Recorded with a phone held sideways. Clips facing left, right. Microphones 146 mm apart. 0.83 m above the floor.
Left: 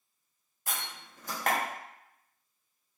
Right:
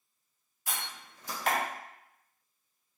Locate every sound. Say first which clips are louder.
0.7 s a door slam: left 1 dB; 45° left (ahead or behind), 0.7 m